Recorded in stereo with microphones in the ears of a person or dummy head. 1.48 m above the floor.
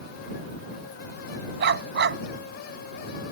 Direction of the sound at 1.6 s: 55° right (ahead or behind).